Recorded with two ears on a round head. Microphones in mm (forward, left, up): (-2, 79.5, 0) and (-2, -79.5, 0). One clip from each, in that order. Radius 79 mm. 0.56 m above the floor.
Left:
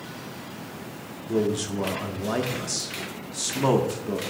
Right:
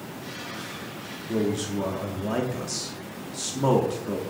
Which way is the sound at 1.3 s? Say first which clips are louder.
Left 2 dB; 15° left (ahead or behind).